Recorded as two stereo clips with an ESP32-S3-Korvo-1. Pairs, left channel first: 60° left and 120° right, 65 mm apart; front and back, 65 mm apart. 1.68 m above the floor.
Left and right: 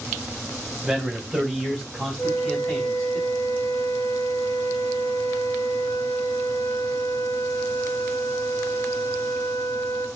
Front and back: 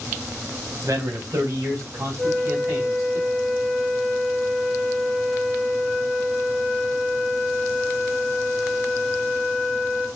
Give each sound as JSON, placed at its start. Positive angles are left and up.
{"t": 0.8, "sound": "a man speaking", "azimuth_deg": 155, "distance_m": 1.7}
{"t": 2.2, "sound": "a flute", "azimuth_deg": 110, "distance_m": 1.3}